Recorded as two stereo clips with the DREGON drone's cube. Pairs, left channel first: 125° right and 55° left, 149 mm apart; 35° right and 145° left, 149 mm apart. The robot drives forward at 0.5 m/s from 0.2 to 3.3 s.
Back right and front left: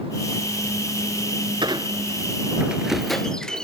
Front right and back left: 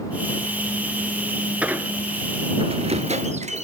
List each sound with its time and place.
1.6 s a squeak: 70° left, 0.7 m; by 3.6 s 150° left, 1.0 m